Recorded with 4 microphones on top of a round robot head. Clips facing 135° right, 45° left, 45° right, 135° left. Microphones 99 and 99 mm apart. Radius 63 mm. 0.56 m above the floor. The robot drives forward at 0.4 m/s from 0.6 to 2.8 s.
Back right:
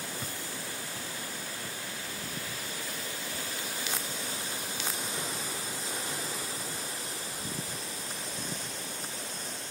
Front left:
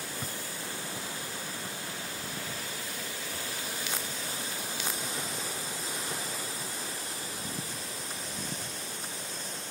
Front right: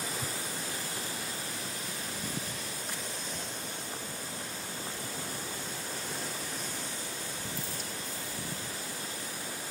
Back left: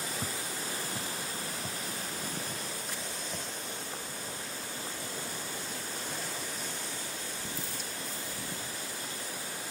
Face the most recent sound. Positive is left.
turn(degrees=120)